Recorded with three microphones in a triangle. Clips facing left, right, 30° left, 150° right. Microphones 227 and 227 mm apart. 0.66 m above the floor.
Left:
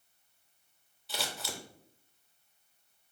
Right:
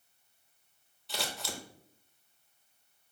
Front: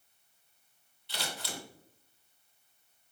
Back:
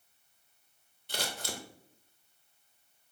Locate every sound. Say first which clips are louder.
1.1 s scissors: right 1 dB, back 2 dB; straight behind, 0.5 m